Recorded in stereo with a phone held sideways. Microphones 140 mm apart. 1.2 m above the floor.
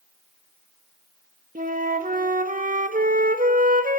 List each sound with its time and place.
1.6 s a flute: 75° right (ahead or behind), 1.9 m